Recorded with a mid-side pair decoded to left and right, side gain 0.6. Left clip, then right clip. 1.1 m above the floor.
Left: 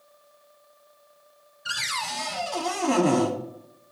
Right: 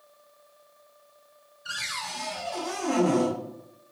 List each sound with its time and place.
1.6 s a cupboard door: 40° left, 1.5 m